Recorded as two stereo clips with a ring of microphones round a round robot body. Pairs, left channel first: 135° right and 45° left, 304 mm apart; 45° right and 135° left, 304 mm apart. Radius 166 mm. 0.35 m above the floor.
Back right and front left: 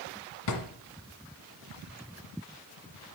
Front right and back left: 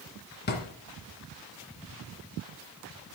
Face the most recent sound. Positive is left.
turn(degrees=-105)